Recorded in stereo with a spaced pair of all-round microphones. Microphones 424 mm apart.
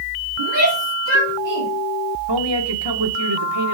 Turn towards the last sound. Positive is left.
turn(degrees=-65)  # may be behind; listen again after turning